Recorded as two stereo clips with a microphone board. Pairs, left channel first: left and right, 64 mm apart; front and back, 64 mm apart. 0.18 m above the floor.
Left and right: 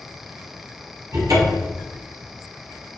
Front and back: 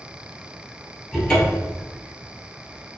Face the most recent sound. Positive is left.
turn(degrees=-75)